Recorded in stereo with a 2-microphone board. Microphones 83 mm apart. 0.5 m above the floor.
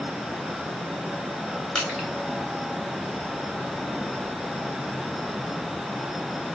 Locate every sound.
1.8 s crushing: 10° left (ahead or behind), 1.6 m